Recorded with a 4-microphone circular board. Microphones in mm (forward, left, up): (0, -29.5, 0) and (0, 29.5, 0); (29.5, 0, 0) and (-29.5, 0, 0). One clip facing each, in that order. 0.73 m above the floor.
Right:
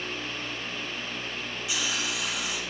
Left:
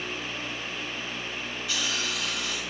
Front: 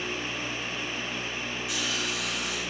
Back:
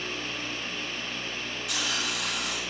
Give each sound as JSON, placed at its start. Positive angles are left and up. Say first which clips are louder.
{"t": 1.7, "sound": "a hiss", "louder": "even, back 1 dB", "azimuth_deg": -165, "distance_m": 2.0}